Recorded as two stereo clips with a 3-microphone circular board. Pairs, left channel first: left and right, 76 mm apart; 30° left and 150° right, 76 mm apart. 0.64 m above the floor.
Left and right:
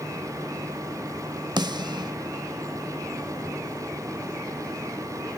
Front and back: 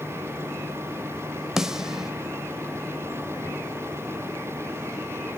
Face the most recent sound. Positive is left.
turn(degrees=-65)